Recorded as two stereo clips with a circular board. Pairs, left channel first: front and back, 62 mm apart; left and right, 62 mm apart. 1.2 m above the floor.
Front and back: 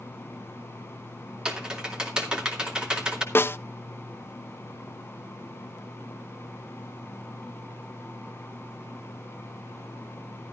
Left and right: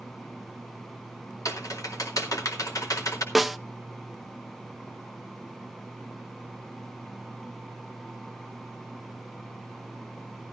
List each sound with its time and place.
1.4 s typing on a keyboard: 105° left, 2.5 m
3.4 s a snare drum: 5° right, 0.6 m